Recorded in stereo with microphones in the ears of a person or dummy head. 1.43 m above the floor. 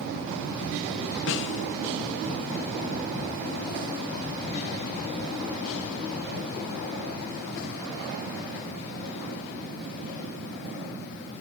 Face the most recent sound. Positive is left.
turn(degrees=65)  # may be behind; listen again after turning